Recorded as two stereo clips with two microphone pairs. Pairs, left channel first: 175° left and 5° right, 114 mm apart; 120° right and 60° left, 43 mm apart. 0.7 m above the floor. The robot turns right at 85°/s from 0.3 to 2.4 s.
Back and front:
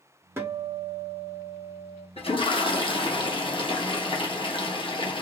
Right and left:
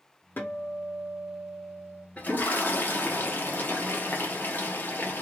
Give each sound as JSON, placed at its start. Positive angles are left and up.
{"t": 0.4, "sound": "a guitar", "azimuth_deg": -75, "distance_m": 0.9}
{"t": 2.2, "sound": "a toilet flushing", "azimuth_deg": -175, "distance_m": 0.8}